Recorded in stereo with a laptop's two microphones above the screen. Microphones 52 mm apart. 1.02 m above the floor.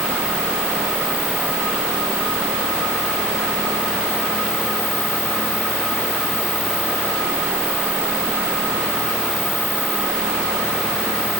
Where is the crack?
No crack in this recording.